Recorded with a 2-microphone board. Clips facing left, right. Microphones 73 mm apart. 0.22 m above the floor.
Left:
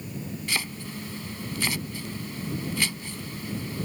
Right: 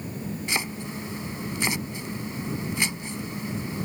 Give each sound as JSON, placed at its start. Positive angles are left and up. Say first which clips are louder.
{"t": 0.5, "sound": "chopping", "louder": "right 2 dB", "side_deg": -20}